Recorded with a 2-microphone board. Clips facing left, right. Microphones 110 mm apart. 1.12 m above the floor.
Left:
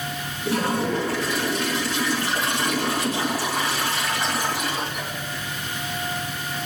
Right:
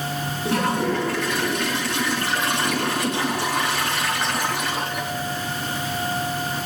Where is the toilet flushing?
60° right (ahead or behind), 3.5 m.